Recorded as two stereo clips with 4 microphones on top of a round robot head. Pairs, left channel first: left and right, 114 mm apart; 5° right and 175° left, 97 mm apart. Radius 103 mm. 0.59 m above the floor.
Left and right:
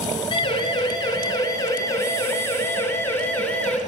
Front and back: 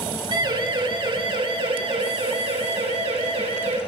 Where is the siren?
135° left, 6.5 m; by 3.8 s 165° left, 8.5 m.